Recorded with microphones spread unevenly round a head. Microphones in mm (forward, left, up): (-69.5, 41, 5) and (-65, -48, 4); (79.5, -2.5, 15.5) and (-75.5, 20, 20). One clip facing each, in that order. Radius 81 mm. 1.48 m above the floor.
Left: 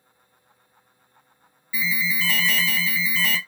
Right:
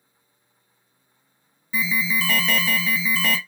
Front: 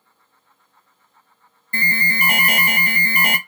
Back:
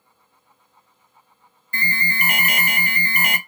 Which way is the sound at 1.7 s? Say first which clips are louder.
Right 2 dB, front 2 dB; 55° right.